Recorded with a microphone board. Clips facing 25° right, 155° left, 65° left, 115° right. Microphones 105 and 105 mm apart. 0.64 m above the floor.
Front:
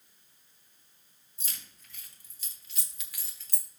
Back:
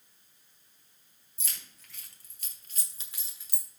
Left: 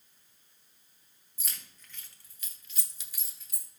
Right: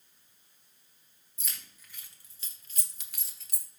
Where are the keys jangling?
155° left, 1.6 m; by 3.7 s 120° right, 1.3 m.